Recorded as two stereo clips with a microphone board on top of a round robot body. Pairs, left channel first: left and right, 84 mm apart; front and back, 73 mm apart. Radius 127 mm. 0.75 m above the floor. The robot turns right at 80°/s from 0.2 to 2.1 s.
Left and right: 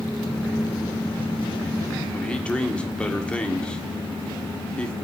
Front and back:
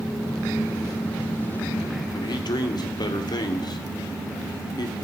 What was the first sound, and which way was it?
A man speaking, 15° left.